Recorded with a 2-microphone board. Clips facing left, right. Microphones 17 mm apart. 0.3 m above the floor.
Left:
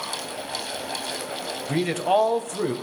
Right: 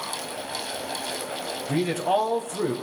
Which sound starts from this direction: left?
A man speaking, at 1.7 s.